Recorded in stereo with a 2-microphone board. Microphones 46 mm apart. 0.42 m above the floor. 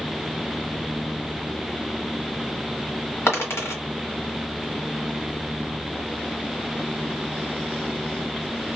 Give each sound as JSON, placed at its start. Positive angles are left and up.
{"t": 3.3, "sound": "a dropped coin", "side_deg": 75, "distance_m": 1.6}